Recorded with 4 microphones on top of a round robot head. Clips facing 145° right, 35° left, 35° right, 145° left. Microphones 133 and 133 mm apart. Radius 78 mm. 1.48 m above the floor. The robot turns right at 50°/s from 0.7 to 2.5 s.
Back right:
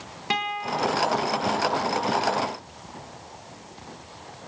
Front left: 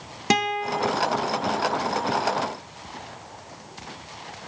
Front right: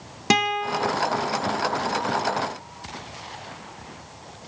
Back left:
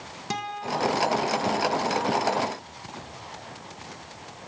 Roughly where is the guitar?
Ahead.